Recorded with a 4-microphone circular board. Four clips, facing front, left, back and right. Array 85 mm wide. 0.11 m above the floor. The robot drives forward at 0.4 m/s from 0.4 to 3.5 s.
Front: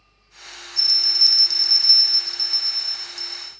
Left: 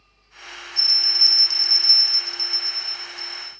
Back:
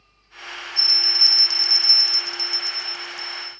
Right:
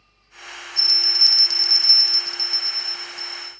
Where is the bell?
80° right, 1.3 m; by 3.5 s 125° right, 1.6 m.